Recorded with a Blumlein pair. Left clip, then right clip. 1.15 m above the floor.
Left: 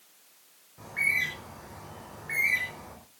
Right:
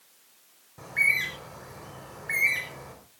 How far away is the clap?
No clap in this recording.